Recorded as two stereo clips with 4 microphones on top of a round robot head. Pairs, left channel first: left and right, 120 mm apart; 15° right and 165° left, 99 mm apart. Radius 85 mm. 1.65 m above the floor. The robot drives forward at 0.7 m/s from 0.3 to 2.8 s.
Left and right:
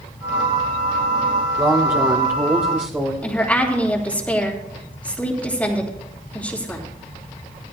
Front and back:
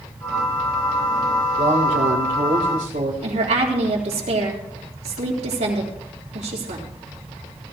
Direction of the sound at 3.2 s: 170° left.